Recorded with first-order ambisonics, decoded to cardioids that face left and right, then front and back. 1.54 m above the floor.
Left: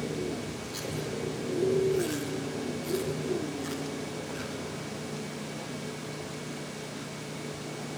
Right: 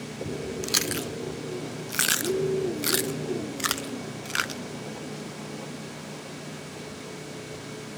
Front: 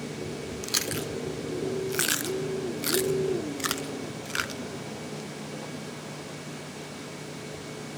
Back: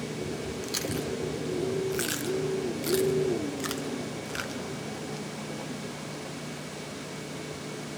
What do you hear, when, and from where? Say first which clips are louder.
0.6 s chewing: right 8 dB, front 4 dB; 65° right, 0.5 m